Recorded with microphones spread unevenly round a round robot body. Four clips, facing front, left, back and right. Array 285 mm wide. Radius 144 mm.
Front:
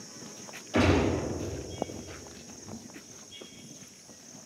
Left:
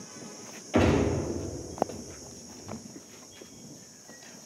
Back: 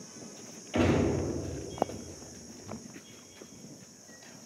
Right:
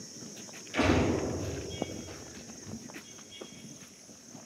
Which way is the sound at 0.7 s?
75° left.